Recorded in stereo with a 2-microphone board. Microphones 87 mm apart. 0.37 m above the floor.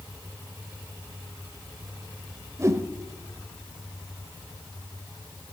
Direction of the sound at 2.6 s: 35° right (ahead or behind).